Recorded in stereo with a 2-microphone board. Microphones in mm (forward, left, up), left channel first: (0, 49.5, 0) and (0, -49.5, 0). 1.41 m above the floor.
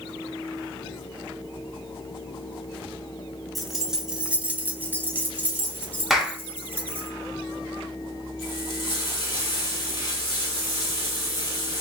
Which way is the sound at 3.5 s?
Centre (ahead or behind).